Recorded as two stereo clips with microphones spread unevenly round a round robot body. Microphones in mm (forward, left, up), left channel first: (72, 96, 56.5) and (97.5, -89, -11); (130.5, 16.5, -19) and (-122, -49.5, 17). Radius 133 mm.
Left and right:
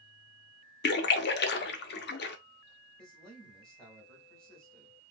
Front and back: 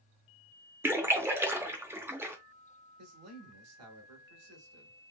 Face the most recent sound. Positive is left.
turn(degrees=-155)